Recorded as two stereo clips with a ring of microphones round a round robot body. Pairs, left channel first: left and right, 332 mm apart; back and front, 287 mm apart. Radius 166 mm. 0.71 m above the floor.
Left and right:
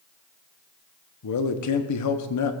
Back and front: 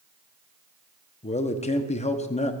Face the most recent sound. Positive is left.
turn(degrees=115)